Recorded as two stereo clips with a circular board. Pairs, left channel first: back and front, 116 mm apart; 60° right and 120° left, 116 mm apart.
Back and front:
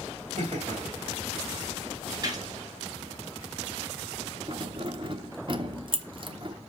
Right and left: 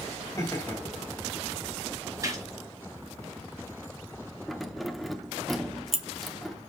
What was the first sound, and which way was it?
Laughter, straight ahead.